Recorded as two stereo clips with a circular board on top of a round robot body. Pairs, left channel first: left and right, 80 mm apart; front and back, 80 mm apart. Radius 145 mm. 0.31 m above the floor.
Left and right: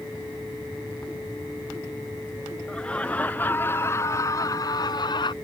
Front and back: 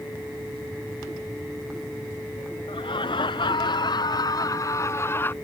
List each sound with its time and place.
2.7 s laughter: 10° left; by 5.3 s 65° left